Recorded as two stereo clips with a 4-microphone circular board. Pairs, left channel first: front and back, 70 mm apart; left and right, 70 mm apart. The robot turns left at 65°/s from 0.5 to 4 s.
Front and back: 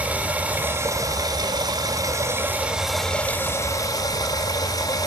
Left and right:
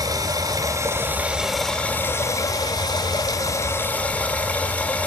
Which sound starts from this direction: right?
Running water, at 0.0 s.